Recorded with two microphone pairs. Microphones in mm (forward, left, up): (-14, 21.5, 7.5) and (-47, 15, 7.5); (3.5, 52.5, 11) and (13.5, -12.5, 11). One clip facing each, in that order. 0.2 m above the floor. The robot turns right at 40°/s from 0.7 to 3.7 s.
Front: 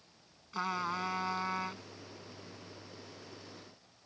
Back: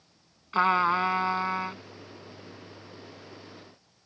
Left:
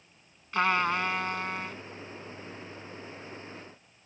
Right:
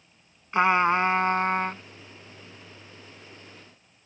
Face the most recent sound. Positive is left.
turn(degrees=-20)